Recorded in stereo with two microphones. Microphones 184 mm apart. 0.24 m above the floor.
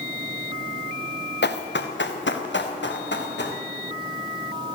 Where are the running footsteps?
70° left (ahead or behind), 1.6 m.